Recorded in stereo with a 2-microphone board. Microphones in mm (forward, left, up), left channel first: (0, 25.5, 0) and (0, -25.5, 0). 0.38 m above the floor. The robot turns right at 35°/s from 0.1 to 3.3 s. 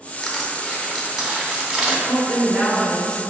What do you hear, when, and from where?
0.2 s crushing: 5° left (ahead or behind), 1.0 m; by 2.0 s 15° right (ahead or behind), 1.0 m
2.1 s a woman speaking: 20° left (ahead or behind), 0.8 m